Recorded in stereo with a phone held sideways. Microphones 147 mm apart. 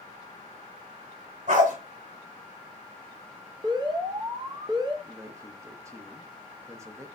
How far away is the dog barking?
About 2.5 m.